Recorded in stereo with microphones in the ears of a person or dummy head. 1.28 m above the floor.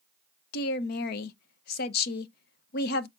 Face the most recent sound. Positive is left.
turn(degrees=55)  # may be behind; listen again after turning